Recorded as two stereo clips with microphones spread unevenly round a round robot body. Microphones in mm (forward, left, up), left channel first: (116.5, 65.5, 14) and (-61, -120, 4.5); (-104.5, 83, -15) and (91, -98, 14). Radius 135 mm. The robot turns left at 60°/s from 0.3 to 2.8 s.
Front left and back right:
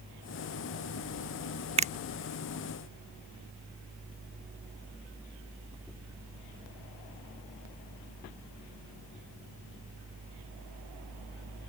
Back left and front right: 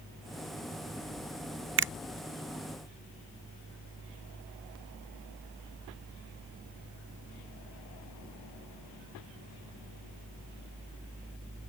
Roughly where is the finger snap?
Right.